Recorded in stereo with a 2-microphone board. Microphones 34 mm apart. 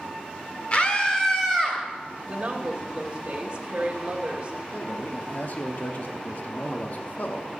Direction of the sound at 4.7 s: 50° left (ahead or behind).